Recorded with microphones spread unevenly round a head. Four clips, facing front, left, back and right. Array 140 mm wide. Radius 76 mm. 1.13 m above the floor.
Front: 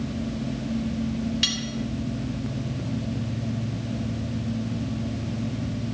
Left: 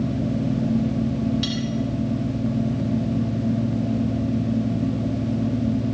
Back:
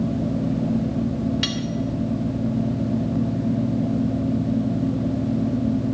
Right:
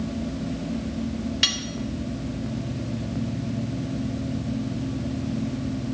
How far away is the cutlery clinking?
About 3 m.